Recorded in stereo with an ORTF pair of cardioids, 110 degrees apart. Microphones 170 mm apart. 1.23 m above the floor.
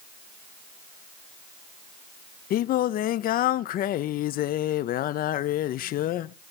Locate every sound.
2.5 s singing: 60° left, 0.6 m